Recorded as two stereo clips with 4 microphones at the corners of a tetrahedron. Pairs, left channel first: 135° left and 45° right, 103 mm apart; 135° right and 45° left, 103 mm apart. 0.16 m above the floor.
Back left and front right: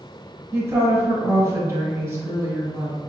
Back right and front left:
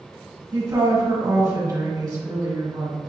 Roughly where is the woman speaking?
Ahead.